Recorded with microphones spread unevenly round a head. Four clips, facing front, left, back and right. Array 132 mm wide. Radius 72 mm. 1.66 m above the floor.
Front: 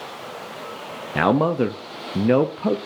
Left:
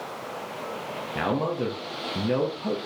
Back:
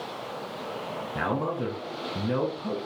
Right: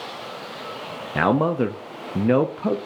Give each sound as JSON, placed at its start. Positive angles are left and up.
{"t": 1.1, "sound": "a man speaking", "azimuth_deg": -30, "distance_m": 0.6}